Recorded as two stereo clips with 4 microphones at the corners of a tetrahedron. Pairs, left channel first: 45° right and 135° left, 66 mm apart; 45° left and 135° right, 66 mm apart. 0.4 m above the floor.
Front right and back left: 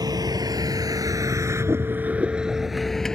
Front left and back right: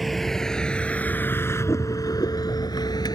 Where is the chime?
I don't hear a chime.